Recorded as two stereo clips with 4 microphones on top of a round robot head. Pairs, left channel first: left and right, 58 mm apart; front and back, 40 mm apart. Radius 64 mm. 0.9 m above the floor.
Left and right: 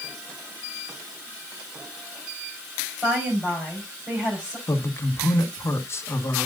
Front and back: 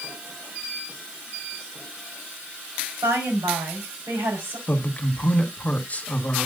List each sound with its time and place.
3.0 s a woman speaking: 170° right, 5 m
4.7 s a man speaking: 50° left, 1.5 m